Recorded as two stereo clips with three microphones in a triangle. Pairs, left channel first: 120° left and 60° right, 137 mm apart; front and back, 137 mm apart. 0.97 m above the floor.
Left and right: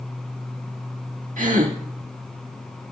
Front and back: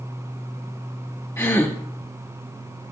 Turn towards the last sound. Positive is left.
turn(degrees=-70)